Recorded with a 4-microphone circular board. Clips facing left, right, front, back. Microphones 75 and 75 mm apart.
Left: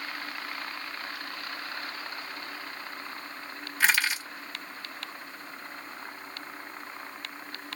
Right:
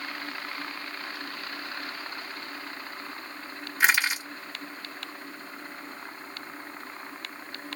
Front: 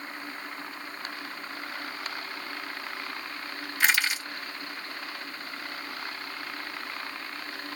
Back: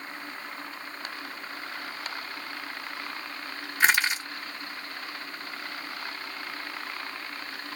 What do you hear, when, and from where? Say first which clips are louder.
3.8 s crushing: right 2 dB, back 2 dB; 150° right, 1.5 m